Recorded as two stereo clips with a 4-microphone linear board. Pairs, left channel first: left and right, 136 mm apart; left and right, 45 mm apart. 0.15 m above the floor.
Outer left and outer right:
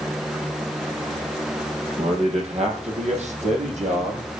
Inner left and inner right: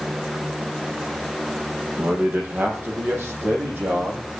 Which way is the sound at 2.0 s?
50° right (ahead or behind).